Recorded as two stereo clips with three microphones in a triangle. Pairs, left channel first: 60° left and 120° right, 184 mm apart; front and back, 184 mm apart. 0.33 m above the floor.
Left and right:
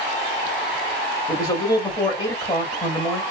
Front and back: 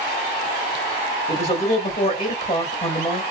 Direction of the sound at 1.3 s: 10° left.